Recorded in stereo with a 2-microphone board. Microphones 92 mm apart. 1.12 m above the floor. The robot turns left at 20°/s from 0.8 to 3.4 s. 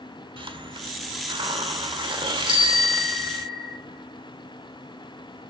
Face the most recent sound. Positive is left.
turn(degrees=-45)  # may be behind; listen again after turning